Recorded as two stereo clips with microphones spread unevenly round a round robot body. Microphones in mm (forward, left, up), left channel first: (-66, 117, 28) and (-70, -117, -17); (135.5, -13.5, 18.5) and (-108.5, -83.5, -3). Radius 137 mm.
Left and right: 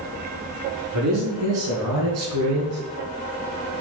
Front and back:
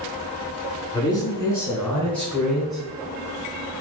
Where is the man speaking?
60° right, 3.5 m; by 2.8 s 75° right, 3 m.